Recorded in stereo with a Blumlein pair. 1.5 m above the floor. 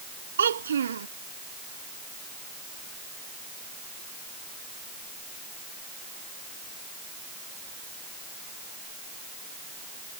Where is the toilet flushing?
I don't hear a toilet flushing.